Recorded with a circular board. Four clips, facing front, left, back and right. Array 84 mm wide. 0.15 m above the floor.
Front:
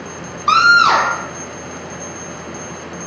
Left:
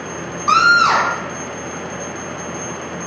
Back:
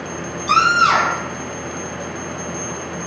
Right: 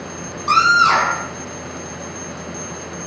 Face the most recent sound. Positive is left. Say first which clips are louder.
# left 1 dB, front 4 dB
turn(degrees=15)